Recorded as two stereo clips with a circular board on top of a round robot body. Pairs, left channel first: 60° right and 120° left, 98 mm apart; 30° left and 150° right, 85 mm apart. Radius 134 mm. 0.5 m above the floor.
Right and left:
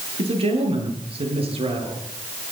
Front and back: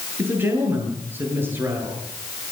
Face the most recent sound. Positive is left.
turn(degrees=140)